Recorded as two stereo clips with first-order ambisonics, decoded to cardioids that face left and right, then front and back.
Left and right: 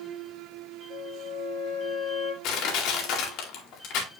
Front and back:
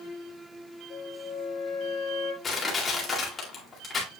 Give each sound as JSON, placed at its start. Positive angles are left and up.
{"t": 0.9, "sound": "a flute", "azimuth_deg": 45, "distance_m": 3.0}
{"t": 2.4, "sound": "crushing", "azimuth_deg": 70, "distance_m": 2.0}